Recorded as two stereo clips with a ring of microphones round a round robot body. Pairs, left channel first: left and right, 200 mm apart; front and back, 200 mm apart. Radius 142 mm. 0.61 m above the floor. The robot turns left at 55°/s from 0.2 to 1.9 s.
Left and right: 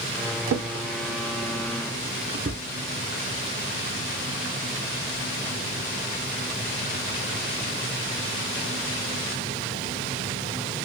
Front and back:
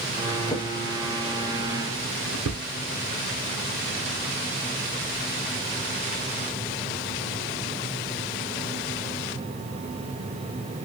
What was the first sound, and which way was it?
A drawer, 75° right.